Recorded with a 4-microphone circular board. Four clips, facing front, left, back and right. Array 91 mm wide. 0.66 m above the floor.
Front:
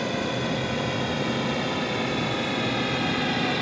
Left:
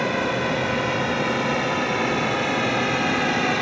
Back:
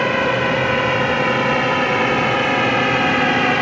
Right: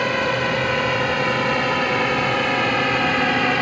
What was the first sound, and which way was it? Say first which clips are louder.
A drone: right 2 dB, back 10 dB; 165° right.